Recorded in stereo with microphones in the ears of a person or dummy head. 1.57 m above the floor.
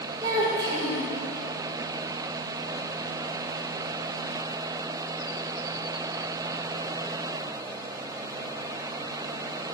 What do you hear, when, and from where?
0.2 s a child speaking: 20° right (ahead or behind), 1.4 m